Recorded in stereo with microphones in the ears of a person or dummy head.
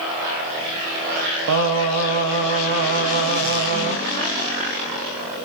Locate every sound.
1.5 s singing: 75° right (ahead or behind), 0.7 m